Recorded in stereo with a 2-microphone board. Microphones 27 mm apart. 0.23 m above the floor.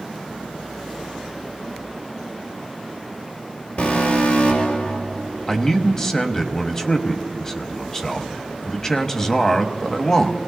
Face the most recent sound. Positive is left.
turn(degrees=20)  # may be behind; listen again after turning